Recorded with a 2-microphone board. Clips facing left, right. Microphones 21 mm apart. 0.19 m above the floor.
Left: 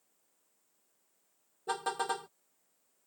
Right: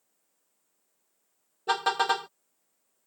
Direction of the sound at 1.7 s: 40° right (ahead or behind).